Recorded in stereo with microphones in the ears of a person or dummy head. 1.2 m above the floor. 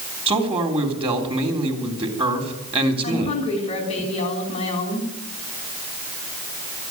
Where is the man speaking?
30° right (ahead or behind), 3 m.